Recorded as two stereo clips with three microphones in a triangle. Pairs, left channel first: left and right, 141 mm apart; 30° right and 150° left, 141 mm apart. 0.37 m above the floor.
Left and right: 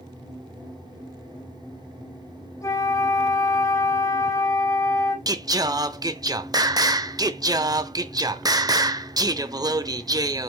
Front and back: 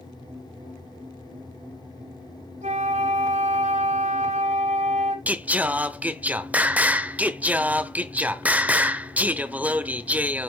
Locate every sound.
2.6 s a flute: 150° left, 3 m
5.3 s singing: 135° right, 0.6 m